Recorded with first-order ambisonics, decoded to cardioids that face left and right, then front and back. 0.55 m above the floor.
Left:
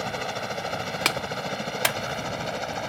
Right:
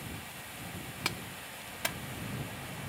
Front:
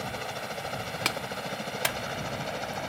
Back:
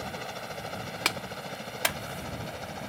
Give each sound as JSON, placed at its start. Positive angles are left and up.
{"t": 0.0, "sound": "a helicopter", "azimuth_deg": 80}
{"t": 1.1, "sound": "a clap", "azimuth_deg": 95}